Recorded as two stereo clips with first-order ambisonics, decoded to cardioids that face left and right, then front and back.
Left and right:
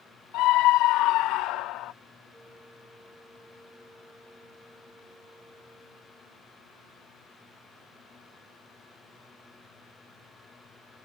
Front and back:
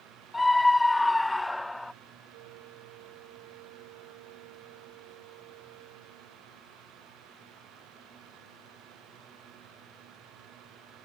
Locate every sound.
0.3 s a scream: 80° left; by 1.9 s 85° left
2.3 s a flute: straight behind